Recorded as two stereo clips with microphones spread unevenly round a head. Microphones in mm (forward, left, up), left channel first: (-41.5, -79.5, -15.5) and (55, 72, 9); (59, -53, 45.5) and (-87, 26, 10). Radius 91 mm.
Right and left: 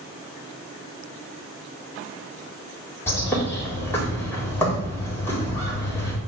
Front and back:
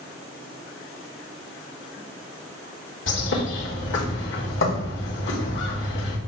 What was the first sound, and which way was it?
A bird, 45° right.